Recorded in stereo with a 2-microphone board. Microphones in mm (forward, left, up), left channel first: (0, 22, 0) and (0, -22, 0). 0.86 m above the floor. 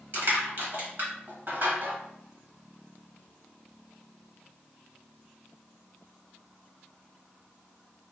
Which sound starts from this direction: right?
Crushing, at 0.1 s.